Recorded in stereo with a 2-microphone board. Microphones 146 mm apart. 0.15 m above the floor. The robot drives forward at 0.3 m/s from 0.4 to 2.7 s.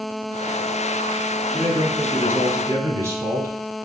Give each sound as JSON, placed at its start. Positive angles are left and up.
{"t": 1.5, "sound": "a man speaking", "side_deg": -20, "distance_m": 1.0}